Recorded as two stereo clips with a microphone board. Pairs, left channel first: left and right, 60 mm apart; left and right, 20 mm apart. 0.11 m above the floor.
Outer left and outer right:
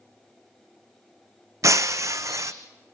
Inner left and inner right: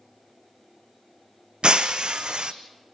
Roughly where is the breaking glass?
Right.